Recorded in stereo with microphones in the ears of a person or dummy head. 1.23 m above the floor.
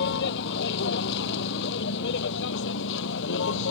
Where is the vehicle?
65° left (ahead or behind).